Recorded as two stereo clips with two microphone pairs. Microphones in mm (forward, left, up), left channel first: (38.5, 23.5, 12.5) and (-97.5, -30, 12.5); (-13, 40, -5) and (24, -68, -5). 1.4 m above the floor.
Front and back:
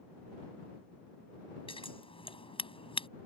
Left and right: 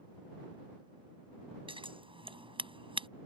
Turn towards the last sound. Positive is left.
turn(degrees=-30)